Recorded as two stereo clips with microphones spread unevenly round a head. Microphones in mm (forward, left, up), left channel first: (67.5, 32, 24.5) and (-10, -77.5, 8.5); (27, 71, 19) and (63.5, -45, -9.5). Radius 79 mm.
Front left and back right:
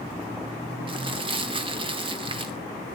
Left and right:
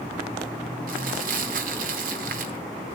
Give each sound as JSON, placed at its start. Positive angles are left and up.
{"t": 0.9, "sound": "crumpling", "azimuth_deg": -75, "distance_m": 1.9}